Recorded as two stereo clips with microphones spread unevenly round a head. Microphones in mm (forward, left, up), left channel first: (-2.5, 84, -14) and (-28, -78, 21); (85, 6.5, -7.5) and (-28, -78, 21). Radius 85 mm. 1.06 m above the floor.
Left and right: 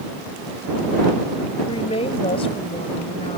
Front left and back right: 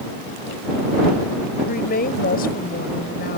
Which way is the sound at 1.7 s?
20° left.